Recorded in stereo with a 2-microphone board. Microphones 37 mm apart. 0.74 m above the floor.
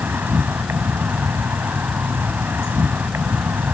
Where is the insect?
80° right.